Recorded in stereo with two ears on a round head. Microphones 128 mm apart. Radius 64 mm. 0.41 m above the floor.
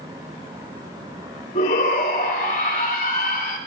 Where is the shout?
50° left (ahead or behind), 3.5 m.